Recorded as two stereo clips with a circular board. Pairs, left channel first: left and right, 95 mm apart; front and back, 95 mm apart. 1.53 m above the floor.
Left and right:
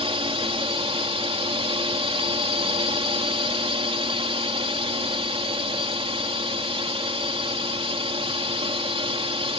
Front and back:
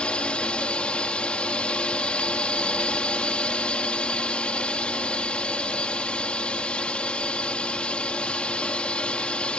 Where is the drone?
80° right.